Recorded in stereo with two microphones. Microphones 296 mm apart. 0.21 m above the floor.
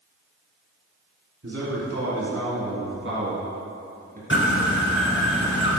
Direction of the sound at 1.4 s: 55° right (ahead or behind).